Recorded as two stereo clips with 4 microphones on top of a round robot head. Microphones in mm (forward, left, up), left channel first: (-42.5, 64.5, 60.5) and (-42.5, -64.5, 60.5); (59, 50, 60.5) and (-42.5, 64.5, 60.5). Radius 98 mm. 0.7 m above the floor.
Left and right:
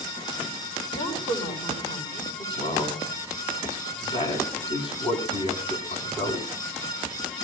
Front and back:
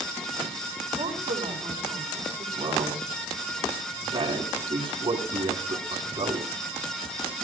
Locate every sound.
0.9 s a woman speaking: 145° left, 9.5 m
2.6 s a man speaking: 140° left, 8 m